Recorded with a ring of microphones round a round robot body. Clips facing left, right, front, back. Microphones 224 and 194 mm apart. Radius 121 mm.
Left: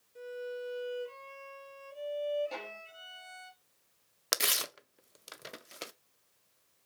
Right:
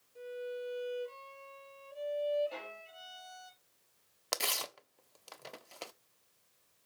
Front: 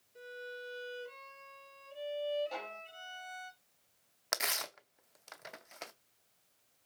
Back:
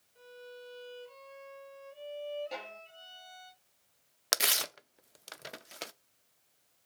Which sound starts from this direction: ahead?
A violin, at 0.1 s.